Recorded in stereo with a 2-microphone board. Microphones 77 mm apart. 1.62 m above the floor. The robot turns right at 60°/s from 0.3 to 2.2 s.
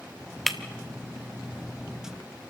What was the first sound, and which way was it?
Breaking glass, 5° left (ahead or behind).